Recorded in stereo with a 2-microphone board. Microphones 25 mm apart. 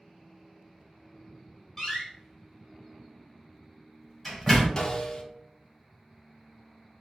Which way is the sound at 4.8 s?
35° left (ahead or behind).